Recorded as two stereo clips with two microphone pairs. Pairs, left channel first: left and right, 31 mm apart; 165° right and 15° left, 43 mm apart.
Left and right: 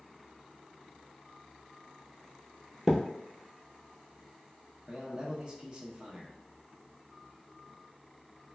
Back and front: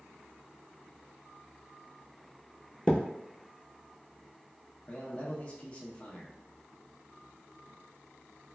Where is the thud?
160° right, 0.7 m.